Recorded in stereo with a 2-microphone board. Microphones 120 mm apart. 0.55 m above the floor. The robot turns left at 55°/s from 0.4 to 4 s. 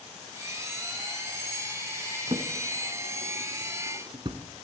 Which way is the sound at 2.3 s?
40° right (ahead or behind).